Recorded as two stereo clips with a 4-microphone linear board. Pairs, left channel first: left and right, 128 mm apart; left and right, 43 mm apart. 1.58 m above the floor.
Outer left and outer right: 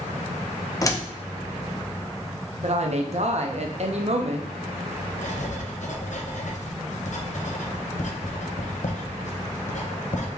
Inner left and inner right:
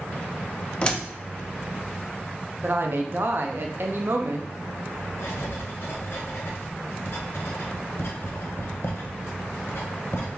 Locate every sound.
0.8 s a door slam: 25° left (ahead or behind), 0.6 m
2.6 s a woman speaking: 60° right (ahead or behind), 0.7 m
5.2 s writing: 70° left (ahead or behind), 0.8 m